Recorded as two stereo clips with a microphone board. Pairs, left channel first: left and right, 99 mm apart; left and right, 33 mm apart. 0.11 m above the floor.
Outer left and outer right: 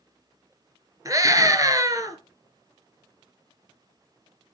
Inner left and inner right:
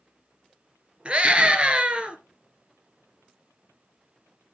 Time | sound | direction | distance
1.1 | a scream | 35° right (ahead or behind) | 1.4 m